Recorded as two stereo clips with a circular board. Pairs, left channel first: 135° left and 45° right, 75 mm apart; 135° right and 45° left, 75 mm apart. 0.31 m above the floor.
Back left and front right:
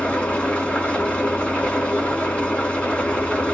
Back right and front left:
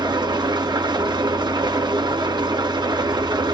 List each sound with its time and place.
0.0 s an engine running: 60° left, 2.0 m